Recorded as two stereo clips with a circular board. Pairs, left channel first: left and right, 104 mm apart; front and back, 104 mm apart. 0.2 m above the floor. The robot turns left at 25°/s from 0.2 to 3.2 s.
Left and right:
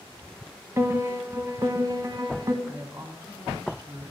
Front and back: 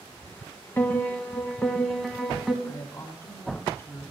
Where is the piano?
50° right, 1.0 m; by 2.5 s 95° right, 1.0 m.